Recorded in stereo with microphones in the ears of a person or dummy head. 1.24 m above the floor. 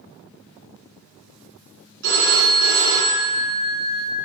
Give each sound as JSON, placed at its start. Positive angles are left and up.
{"t": 2.0, "sound": "a phone ringing", "side_deg": -70, "distance_m": 1.5}